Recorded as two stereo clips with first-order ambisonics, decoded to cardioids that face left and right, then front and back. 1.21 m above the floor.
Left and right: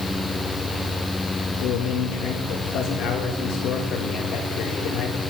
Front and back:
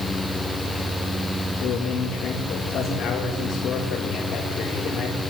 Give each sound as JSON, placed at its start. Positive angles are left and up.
{"t": 1.6, "sound": "a man speaking", "azimuth_deg": 50, "distance_m": 1.9}